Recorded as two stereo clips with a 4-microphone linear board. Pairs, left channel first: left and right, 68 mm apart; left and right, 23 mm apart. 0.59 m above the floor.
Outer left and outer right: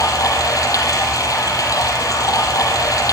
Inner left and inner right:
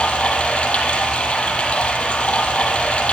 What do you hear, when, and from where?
0.0 s running water: 60° left (ahead or behind), 5.5 m